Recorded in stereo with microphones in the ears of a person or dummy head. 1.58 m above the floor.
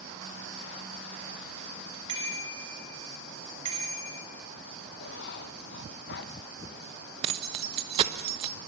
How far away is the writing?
About 1.4 m.